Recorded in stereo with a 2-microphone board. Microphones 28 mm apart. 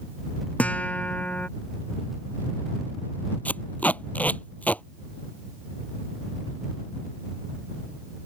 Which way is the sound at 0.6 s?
55° left (ahead or behind).